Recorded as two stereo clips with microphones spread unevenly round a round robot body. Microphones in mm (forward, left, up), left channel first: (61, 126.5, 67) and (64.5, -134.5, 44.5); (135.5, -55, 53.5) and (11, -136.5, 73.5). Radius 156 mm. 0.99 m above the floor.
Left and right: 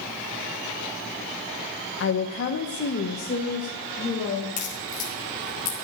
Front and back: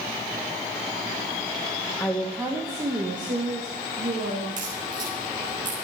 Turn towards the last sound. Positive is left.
turn(degrees=155)